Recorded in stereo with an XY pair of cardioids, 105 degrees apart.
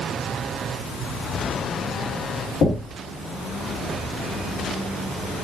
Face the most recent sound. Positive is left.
turn(degrees=50)